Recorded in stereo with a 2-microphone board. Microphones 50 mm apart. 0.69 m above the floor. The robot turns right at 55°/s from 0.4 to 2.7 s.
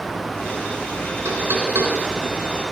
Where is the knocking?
75° right (ahead or behind), 4.5 m; by 1.9 s 70° right (ahead or behind), 4.5 m.